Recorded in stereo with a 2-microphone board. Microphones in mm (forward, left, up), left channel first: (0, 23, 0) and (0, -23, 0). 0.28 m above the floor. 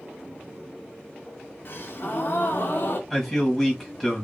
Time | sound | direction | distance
1.6 | a gasp | 50° left (ahead or behind) | 0.6 m
3.1 | a man speaking | 5° left (ahead or behind) | 1.4 m